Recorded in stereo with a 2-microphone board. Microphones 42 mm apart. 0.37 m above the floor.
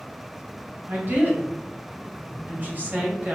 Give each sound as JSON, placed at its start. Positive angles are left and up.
{"t": 0.9, "sound": "a woman speaking", "side_deg": -50, "distance_m": 1.8}